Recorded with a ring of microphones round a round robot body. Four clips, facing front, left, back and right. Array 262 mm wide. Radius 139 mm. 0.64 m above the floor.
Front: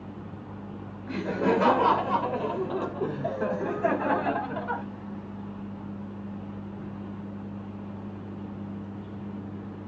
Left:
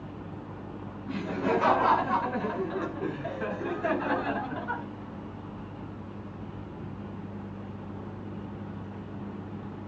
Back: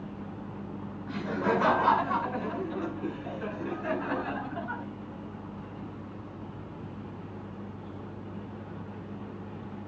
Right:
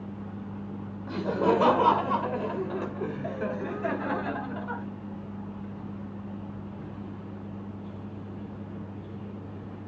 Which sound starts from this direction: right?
Laughter, at 1.1 s.